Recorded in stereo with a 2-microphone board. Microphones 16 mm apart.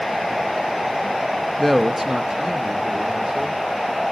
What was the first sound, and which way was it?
A man speaking, 5° left (ahead or behind).